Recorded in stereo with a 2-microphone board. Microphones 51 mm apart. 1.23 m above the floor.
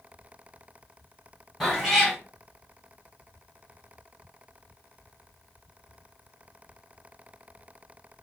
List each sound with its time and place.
1.6 s a cat meowing: 5° left (ahead or behind), 1.4 m